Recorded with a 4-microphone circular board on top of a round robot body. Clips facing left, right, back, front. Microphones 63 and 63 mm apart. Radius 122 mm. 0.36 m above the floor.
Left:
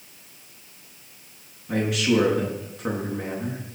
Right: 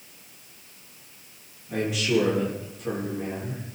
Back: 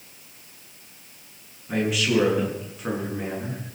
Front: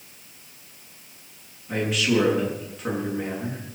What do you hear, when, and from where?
1.7 s a man speaking: 95° left, 7 m